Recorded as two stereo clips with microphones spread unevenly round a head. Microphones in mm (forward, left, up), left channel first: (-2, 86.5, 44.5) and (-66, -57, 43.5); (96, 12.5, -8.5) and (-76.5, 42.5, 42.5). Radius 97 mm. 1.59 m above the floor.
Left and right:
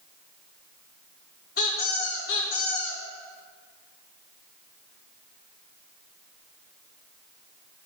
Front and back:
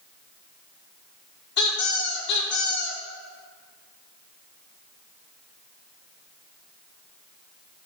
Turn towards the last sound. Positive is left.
turn(degrees=20)